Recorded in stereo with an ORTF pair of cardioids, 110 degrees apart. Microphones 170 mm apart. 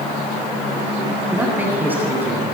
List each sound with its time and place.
1.3 s a man speaking: 10° right, 9 m